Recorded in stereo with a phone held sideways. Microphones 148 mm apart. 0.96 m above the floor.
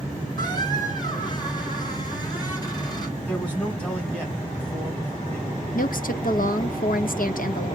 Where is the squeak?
30° left (ahead or behind), 2.5 m.